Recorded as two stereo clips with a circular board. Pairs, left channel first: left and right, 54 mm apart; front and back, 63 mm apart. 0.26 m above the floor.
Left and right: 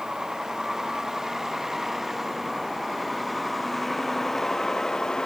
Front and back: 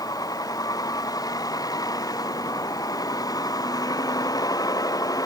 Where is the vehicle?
10° right; by 5.3 s 15° left.